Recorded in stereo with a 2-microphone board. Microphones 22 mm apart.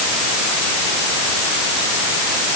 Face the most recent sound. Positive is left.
No sound to turn to.